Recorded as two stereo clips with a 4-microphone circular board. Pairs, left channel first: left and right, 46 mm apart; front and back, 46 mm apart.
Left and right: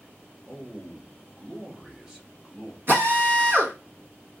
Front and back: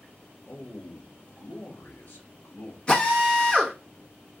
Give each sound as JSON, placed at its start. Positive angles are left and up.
{"t": 0.5, "sound": "a man speaking", "azimuth_deg": -20, "distance_m": 1.6}
{"t": 2.9, "sound": "a drill", "azimuth_deg": -60, "distance_m": 1.1}